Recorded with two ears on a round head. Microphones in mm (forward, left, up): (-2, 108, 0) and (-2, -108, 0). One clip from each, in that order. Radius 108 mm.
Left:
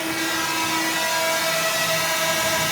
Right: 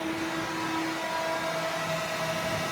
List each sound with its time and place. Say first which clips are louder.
0.0 s a drone: left 8 dB; 60° left (ahead or behind); by 2.7 s 50° left (ahead or behind)